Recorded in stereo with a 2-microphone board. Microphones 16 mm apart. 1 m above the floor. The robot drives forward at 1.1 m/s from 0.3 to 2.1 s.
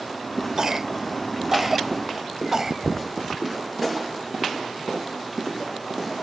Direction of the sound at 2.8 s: 40° right (ahead or behind).